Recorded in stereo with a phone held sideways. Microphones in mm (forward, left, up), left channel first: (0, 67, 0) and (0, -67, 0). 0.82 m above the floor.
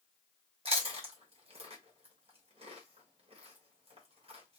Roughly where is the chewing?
Right.